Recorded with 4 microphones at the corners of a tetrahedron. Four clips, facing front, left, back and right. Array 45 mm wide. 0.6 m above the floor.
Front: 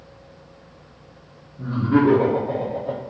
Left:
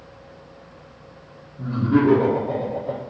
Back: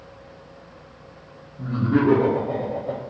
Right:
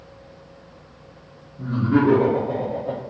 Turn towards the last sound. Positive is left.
turn(degrees=-45)